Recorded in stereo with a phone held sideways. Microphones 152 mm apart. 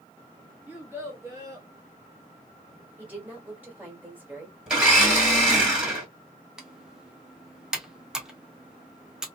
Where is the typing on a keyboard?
5° right (ahead or behind), 0.7 m.